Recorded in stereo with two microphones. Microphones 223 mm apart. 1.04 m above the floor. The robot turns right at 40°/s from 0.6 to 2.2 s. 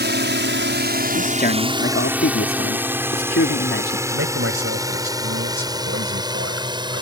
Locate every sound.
0.0 s a drone: 50° right (ahead or behind); by 7.0 s 20° right (ahead or behind)
1.1 s a man speaking: 35° left; by 4.0 s 75° left
4.1 s a man speaking: 80° right